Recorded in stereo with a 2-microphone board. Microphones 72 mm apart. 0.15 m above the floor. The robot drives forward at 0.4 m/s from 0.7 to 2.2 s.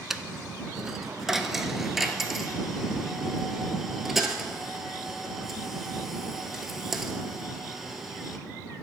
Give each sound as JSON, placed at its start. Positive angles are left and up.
{"t": 0.1, "sound": "a dropped coin", "side_deg": -5, "distance_m": 0.5}